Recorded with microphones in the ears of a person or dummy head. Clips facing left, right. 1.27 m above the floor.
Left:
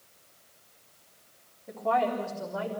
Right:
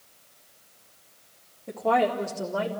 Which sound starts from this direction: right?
A woman speaking, at 1.7 s.